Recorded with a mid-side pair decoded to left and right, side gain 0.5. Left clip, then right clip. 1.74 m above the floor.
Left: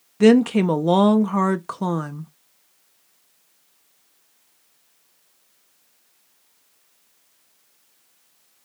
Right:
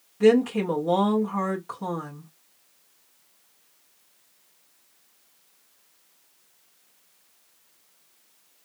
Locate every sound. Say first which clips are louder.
0.2 s a woman speaking: left 3 dB; 60° left, 0.7 m